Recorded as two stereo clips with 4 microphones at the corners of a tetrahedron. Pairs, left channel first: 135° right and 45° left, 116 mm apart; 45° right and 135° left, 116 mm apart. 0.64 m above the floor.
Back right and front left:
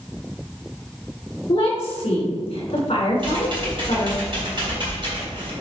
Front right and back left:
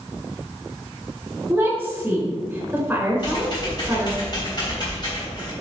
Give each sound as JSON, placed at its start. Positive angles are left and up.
{"t": 1.5, "sound": "a woman speaking", "azimuth_deg": -160, "distance_m": 3.0}
{"t": 3.2, "sound": "typing on a keyboard", "azimuth_deg": 5, "distance_m": 3.0}